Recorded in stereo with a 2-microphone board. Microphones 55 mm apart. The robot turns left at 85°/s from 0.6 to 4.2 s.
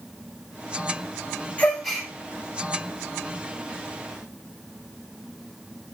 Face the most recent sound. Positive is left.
turn(degrees=165)